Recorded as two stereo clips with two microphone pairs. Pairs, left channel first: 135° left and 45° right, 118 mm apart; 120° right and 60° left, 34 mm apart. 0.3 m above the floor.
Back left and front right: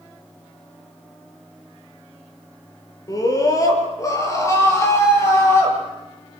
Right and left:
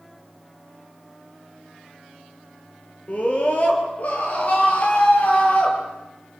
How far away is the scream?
About 6.5 m.